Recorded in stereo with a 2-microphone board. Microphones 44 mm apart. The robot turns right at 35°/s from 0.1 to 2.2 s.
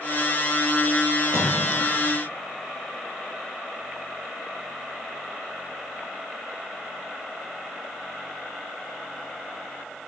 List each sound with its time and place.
1.2 s a splash: 70° right (ahead or behind), 7.5 m; by 1.9 s 85° right, 7.5 m